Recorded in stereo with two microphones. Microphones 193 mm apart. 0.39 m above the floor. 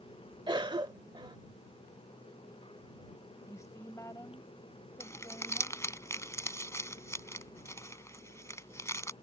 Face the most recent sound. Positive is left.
turn(degrees=15)  # may be behind; listen again after turning